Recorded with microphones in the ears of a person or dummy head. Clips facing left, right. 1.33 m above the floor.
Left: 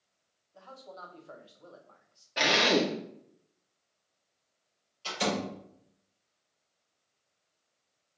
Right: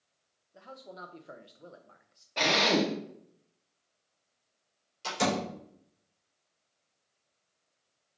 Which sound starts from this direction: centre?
A drill, at 2.4 s.